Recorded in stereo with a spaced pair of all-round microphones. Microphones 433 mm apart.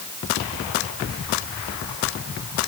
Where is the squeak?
I don't hear a squeak.